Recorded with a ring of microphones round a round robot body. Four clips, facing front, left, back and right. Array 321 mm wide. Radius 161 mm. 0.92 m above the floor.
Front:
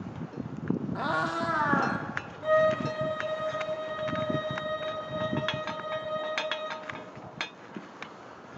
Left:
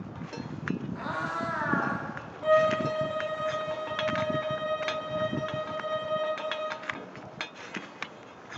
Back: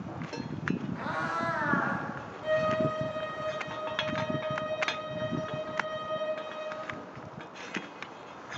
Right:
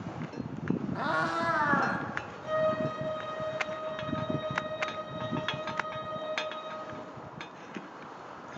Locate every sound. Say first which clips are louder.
0.9 s a cat meowing: right 3 dB, front 3 dB; 30° right, 0.7 m
2.4 s a violin: left 6 dB, front 3 dB; 70° left, 0.9 m